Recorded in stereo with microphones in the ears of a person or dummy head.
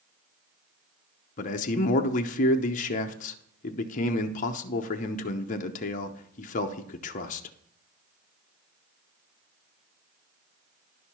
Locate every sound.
1.4 s a man speaking: 35° left (ahead or behind), 0.7 m